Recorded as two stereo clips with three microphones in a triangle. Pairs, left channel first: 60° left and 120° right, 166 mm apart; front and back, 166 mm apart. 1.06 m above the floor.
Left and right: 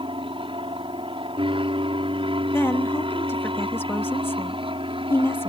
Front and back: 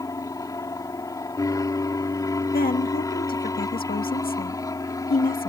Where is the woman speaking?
15° right.